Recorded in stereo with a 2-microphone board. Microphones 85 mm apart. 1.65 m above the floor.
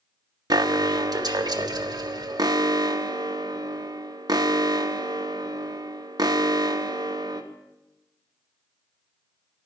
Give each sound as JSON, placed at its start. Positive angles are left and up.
{"t": 0.5, "sound": "an alarm", "side_deg": -45, "distance_m": 0.5}